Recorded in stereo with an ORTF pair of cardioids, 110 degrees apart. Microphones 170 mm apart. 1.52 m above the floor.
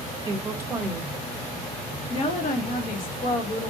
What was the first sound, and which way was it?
A woman speaking, 20° right.